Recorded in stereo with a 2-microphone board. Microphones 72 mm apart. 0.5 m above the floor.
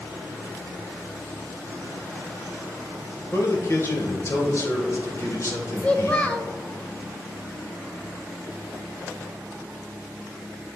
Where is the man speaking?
45° left (ahead or behind), 1.6 m.